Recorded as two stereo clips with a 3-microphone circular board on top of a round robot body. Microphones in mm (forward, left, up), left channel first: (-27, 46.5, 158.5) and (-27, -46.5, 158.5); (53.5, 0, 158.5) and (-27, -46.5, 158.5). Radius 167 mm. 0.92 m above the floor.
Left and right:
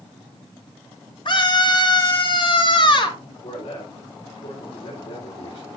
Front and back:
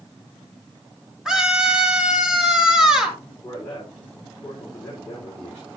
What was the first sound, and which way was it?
A scream, 125° left.